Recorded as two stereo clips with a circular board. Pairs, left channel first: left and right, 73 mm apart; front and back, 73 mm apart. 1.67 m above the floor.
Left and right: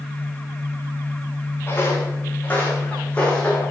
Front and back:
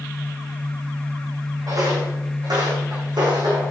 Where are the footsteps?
150° left, 6 m; by 3.7 s 170° left, 6 m.